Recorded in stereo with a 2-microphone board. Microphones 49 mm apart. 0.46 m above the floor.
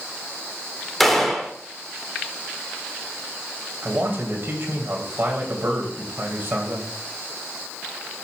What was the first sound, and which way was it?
A gunshot, 5° left (ahead or behind).